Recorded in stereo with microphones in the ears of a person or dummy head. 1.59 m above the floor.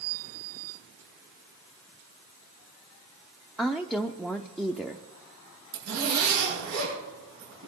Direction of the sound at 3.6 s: Centre (ahead or behind).